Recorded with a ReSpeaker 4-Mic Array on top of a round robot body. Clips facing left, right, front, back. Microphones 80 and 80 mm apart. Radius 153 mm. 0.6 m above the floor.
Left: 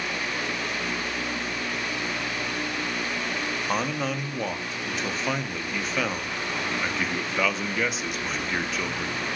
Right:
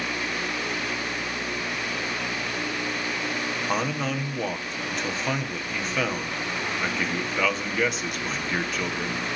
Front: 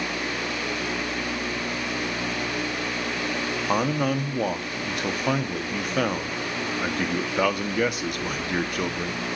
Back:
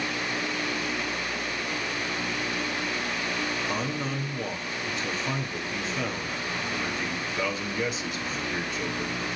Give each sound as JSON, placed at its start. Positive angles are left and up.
{"t": 3.7, "sound": "a man speaking", "azimuth_deg": 0, "distance_m": 1.5}